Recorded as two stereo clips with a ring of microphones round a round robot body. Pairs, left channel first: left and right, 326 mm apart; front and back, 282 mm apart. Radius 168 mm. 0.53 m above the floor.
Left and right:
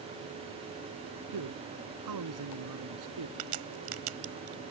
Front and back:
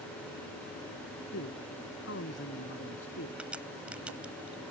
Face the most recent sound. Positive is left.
turn(degrees=-95)